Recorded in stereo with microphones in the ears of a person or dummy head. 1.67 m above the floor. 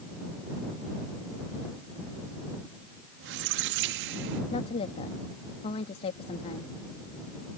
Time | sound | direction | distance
3.2 | a squeak | 55° right (ahead or behind) | ?
4.5 | a woman speaking | 35° left (ahead or behind) | ?